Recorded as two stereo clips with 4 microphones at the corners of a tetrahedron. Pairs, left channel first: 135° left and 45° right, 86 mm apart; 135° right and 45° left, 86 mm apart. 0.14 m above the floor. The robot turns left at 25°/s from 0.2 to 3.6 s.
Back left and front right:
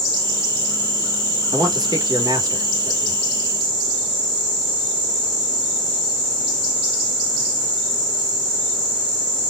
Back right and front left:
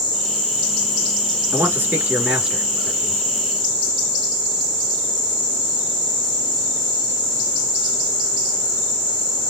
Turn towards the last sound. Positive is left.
turn(degrees=-60)